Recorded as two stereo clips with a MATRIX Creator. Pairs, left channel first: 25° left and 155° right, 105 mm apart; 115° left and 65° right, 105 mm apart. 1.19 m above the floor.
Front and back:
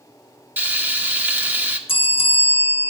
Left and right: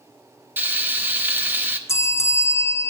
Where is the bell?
50° left, 0.5 m.